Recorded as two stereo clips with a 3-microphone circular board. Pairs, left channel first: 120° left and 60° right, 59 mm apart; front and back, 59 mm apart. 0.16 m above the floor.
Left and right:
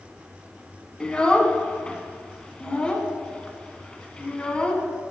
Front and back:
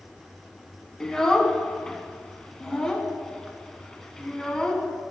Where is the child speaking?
70° left, 0.6 m.